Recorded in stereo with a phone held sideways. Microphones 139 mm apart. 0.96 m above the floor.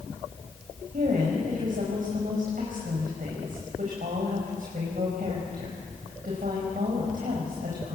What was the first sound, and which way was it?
A woman speaking, 70° right (ahead or behind).